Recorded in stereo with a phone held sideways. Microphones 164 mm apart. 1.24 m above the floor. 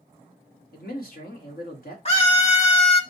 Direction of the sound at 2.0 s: 40° left (ahead or behind).